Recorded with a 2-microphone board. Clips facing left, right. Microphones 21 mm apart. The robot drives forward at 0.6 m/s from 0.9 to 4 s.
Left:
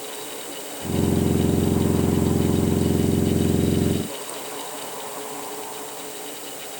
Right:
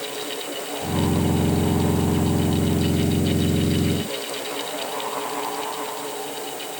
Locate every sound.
Only background noise.